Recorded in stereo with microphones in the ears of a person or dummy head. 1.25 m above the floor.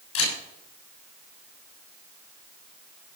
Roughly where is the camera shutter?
Left.